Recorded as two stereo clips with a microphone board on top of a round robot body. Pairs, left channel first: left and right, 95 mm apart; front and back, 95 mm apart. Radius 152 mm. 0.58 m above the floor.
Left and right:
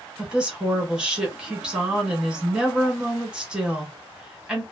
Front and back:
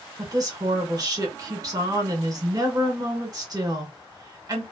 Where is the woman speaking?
165° right, 1.4 m.